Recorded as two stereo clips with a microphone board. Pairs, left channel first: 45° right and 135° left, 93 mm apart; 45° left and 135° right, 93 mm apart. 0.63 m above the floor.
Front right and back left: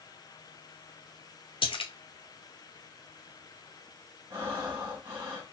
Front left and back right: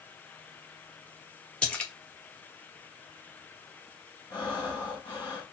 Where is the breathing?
80° left, 1.9 m.